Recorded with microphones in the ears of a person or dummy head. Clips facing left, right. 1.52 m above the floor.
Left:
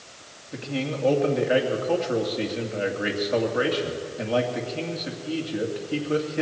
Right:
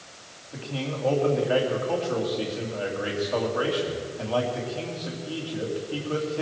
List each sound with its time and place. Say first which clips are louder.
0.5 s a man speaking: left 3 dB; 25° left (ahead or behind), 2.5 m